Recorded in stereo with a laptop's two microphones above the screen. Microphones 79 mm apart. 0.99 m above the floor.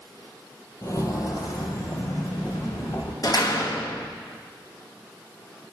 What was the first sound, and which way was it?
Footsteps, 40° left (ahead or behind).